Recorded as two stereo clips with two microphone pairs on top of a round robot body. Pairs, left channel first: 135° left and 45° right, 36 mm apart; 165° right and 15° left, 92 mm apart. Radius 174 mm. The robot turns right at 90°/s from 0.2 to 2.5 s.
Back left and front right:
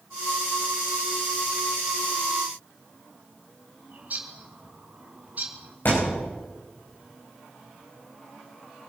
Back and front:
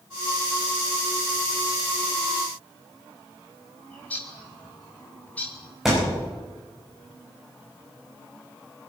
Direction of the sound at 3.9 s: 85° right.